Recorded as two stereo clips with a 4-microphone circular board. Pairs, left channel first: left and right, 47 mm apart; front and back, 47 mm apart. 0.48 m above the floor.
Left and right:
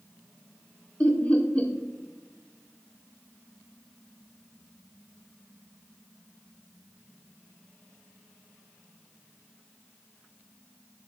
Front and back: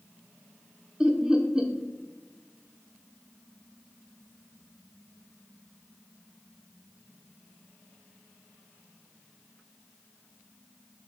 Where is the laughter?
120° left, 0.9 m.